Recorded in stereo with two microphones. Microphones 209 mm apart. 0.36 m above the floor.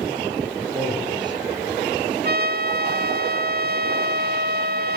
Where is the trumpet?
50° right (ahead or behind), 0.7 m.